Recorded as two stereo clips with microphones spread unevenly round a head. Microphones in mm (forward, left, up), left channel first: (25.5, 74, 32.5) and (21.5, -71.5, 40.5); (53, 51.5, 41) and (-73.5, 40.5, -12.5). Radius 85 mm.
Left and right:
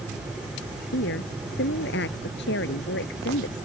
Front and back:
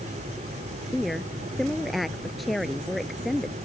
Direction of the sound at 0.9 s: 95° left.